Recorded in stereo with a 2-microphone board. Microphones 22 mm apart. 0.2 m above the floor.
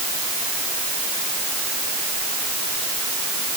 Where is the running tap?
I don't hear a running tap.